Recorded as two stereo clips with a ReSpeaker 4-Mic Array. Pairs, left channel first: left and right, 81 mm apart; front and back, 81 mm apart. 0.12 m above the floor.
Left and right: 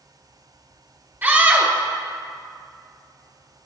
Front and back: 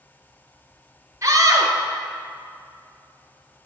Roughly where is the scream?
Behind right.